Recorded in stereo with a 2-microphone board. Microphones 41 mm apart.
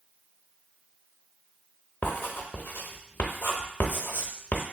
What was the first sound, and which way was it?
Writing, 60° left (ahead or behind).